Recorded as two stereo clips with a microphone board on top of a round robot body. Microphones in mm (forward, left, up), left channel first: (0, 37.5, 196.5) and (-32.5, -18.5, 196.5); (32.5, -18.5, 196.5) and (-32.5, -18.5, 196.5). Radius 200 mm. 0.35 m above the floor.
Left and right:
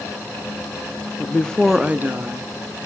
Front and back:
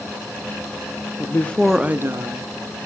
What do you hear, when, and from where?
1.2 s a woman speaking: 10° left, 1.1 m; by 2.5 s 165° right, 1.5 m